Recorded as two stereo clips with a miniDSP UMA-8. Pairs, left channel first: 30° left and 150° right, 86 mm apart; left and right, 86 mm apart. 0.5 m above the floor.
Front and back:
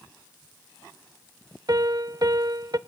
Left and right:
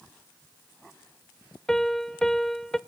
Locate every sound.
1.7 s a piano: 170° left, 0.5 m